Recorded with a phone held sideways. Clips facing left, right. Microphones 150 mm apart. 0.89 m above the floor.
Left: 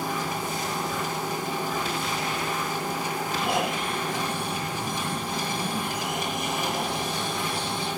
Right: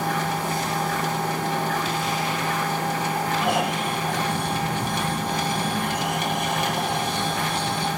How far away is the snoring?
About 6 m.